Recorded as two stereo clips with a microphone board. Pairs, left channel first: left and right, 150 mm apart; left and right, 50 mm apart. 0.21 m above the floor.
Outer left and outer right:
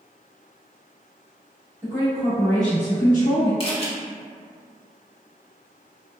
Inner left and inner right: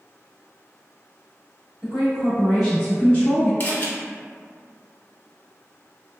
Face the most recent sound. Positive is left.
turn(degrees=40)  # may be behind; listen again after turning